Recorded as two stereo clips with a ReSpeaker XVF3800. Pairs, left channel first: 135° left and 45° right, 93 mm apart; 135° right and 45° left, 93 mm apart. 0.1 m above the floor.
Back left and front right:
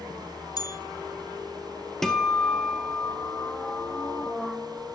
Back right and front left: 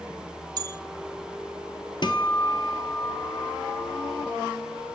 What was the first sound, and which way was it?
A bell, 90° left.